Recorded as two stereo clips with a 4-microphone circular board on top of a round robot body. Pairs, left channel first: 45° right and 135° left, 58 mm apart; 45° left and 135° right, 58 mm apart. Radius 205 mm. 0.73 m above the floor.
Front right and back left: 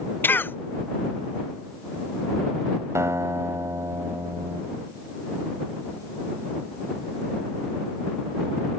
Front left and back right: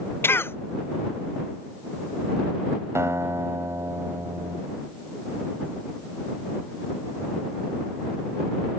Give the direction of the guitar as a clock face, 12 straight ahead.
6 o'clock.